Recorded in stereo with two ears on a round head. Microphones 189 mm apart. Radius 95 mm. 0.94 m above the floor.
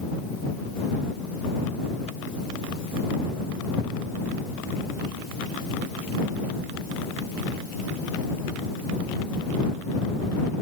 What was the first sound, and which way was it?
Only background noise.